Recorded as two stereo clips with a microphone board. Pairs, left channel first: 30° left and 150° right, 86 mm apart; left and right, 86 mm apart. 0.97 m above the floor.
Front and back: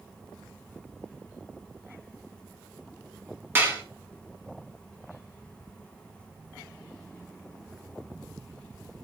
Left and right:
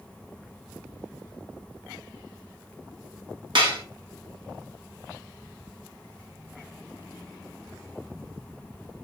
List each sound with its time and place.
3.5 s dishes clattering: 85° right, 0.9 m